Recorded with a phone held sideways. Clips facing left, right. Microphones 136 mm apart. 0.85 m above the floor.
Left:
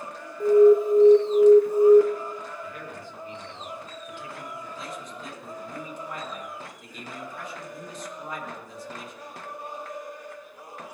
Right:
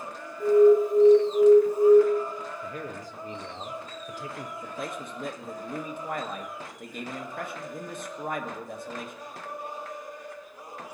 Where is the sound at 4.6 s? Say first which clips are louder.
Right 2 dB; 60° right (ahead or behind), 1.3 m.